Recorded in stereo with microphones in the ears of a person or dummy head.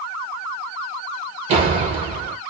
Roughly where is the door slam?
Right.